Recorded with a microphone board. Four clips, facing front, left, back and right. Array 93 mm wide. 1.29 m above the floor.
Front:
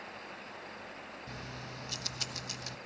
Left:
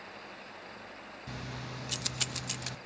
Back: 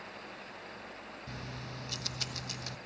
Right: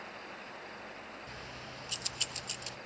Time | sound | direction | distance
1.3 | keys jangling | 85° left | 1.0 m